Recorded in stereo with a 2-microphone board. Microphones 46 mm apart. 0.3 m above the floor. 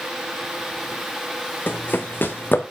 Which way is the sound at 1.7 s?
45° left (ahead or behind).